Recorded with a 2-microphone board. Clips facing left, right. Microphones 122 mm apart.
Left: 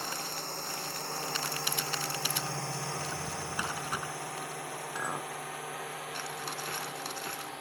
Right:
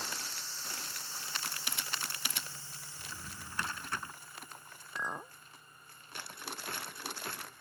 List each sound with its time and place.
0.0 s a drone: 55° left (ahead or behind); by 7.6 s 85° left
3.0 s a drawer: 15° left (ahead or behind)
5.0 s a clink: 20° left (ahead or behind)